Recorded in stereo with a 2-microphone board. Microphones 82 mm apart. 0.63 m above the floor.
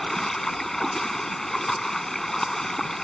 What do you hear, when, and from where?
0.0 s running water: 5° left (ahead or behind)